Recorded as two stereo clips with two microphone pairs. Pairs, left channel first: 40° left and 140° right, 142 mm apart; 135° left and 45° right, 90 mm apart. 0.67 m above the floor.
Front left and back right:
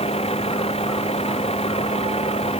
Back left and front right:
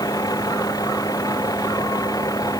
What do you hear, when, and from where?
0.0 s a vehicle: 85° left